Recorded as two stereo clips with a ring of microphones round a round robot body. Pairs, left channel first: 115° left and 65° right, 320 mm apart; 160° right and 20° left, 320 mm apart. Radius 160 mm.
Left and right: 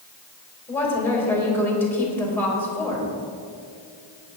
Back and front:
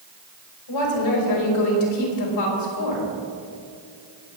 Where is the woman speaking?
165° right, 3.5 m.